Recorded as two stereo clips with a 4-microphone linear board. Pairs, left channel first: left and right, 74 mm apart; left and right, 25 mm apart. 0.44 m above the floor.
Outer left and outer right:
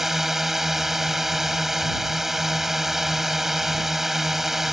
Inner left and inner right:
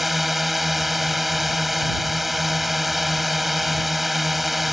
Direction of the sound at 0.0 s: 5° right (ahead or behind).